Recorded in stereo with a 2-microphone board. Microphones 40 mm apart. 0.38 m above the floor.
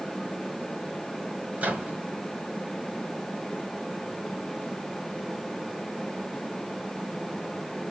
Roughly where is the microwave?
Right.